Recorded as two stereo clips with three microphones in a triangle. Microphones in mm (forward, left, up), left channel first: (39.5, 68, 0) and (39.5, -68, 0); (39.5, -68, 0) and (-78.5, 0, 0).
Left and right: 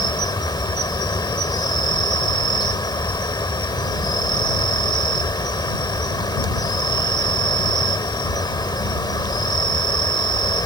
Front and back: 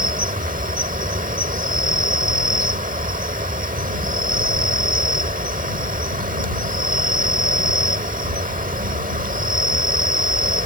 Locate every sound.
0.0 s an insect: 145° left